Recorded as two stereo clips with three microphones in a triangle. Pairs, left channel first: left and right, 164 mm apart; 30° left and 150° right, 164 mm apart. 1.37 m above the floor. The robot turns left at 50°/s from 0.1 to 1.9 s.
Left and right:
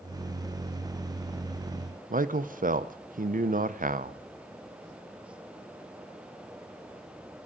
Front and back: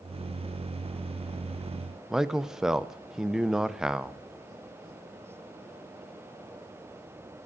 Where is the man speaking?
65° right, 0.5 m.